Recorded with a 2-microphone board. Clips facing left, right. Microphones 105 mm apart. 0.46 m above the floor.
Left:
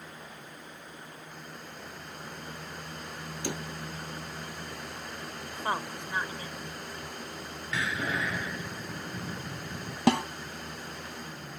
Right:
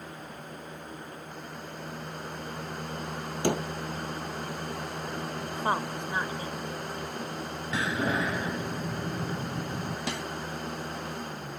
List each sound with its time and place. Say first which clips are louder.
3.4 s a door slam: right 9 dB; 60° right (ahead or behind)
5.5 s a woman speaking: right 3 dB; 20° right (ahead or behind)
7.7 s a door slam: right 3 dB; 30° right (ahead or behind)
10.1 s a snare drum: left 15 dB; 70° left (ahead or behind)